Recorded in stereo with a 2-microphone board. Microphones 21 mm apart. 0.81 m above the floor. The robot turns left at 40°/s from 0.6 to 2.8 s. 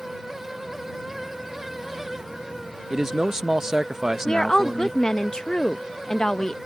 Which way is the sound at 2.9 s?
20° right (ahead or behind).